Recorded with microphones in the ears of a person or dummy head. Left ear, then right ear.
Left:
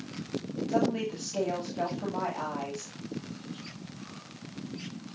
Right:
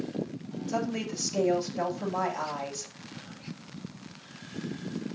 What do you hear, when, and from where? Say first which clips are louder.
0.7 s a woman speaking: left 3 dB; 80° right, 8 m